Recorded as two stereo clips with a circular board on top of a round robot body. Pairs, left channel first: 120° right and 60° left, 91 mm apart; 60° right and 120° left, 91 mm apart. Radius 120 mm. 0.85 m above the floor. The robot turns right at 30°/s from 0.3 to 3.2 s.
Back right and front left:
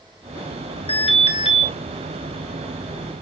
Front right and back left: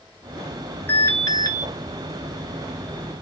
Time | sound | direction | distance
0.9 | an alarm | 125° right | 2.5 m